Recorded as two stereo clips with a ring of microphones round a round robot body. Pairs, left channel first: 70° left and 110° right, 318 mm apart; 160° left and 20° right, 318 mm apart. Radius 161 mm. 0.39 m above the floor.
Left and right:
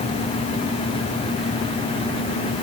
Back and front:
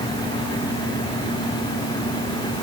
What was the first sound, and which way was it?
Only background noise.